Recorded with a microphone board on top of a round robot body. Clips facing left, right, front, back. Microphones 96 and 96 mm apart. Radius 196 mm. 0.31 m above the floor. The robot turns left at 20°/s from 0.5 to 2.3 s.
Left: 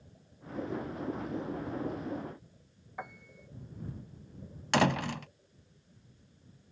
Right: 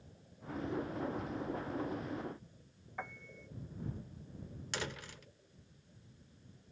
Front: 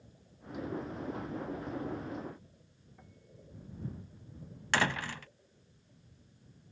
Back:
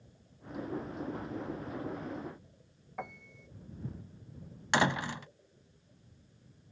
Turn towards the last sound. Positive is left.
turn(degrees=110)